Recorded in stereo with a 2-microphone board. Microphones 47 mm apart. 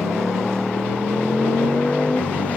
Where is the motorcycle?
10° left (ahead or behind); by 2.6 s 30° left (ahead or behind).